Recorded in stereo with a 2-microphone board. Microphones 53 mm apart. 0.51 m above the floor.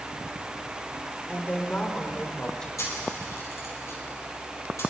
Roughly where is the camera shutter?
Left.